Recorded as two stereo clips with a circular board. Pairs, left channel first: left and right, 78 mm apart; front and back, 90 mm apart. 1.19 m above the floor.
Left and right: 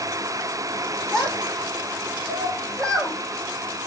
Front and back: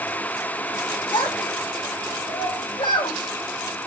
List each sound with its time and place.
1.1 s a child speaking: 10° left, 3 m